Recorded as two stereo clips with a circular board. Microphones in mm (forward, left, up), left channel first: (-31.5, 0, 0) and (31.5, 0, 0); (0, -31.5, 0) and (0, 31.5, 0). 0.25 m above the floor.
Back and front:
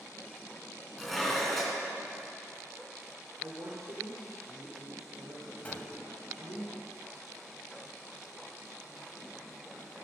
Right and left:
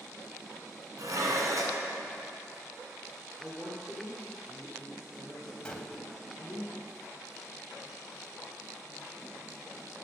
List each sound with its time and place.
1.0 s dishes clattering: 95° left, 1.9 m
3.4 s a woman speaking: 5° left, 3 m
5.7 s a gunshot: 145° right, 1.2 m